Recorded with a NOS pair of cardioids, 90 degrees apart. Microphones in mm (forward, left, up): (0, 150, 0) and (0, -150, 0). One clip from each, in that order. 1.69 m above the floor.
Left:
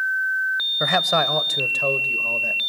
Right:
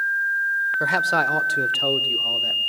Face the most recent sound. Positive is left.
turn(degrees=-15)